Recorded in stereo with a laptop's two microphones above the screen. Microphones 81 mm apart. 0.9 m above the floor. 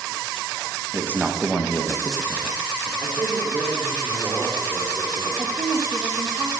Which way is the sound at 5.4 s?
45° right (ahead or behind).